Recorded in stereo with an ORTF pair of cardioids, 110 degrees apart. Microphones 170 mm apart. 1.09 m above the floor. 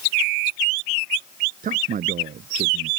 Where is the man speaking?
50° right.